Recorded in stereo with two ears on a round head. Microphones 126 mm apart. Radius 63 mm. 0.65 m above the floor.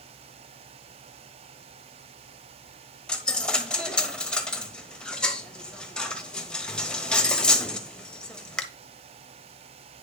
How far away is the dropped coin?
About 1.1 m.